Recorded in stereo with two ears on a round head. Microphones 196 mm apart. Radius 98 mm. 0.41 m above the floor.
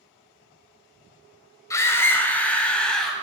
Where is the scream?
15° left (ahead or behind), 1.7 m; by 3.1 s 5° left (ahead or behind), 2.5 m.